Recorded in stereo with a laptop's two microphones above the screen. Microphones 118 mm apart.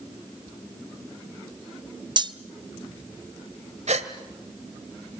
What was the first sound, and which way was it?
Cutlery clinking, 40° right (ahead or behind).